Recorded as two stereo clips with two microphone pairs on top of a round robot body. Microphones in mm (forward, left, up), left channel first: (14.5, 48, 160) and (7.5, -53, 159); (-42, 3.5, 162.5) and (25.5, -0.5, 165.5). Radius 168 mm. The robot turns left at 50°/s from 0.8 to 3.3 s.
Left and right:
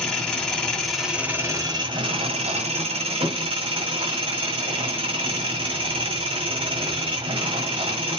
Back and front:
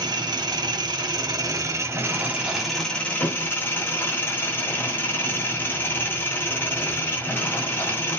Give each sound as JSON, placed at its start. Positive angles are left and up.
{"t": 0.0, "sound": "an engine running", "azimuth_deg": 5, "distance_m": 1.5}